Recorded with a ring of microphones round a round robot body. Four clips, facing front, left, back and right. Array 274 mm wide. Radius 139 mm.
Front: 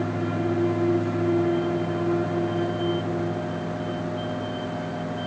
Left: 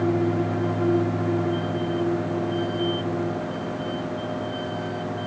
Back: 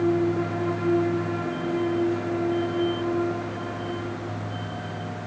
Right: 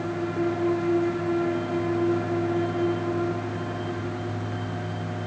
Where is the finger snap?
I don't hear a finger snap.